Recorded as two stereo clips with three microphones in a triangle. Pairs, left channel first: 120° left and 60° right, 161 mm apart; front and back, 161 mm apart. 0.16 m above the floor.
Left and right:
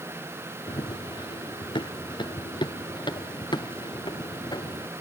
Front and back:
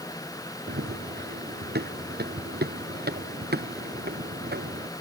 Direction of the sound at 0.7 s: Straight behind.